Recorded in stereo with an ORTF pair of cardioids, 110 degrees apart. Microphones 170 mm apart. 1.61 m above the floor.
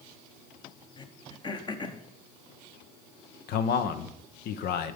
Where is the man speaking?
70° left, 0.9 m.